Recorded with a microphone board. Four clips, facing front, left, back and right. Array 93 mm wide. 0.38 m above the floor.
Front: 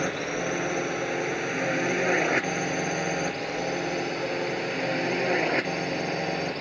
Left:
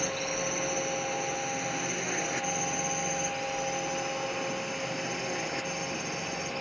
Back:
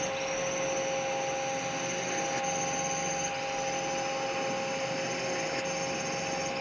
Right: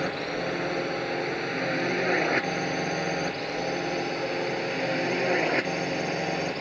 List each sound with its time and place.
0.0 s a drone: 35° right; by 6.6 s 45° right